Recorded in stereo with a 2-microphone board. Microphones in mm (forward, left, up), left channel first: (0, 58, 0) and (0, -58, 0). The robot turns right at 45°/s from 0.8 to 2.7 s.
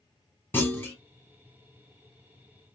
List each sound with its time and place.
0.5 s a clunk: 15° left (ahead or behind), 0.9 m; by 1.0 s 20° left (ahead or behind), 0.9 m